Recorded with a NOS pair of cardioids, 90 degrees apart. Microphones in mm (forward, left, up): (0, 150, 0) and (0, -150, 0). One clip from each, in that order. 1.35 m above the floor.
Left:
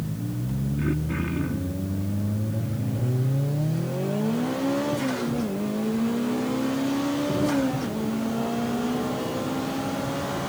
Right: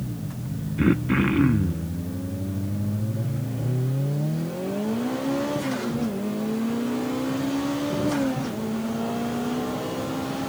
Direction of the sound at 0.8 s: 65° right.